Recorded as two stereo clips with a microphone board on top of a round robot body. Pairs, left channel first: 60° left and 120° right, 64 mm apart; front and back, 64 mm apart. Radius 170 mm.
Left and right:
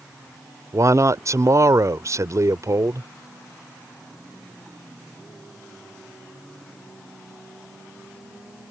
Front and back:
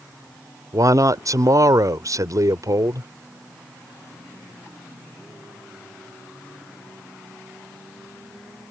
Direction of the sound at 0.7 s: 155° right.